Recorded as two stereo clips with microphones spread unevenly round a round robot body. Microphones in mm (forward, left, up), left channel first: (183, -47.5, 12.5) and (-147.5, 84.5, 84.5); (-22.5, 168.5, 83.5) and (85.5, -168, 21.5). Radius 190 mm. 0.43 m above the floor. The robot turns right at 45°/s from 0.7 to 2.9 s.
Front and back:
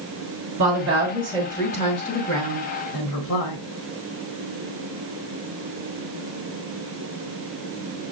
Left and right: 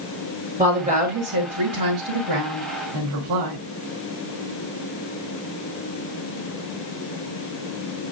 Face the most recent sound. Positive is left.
turn(degrees=-50)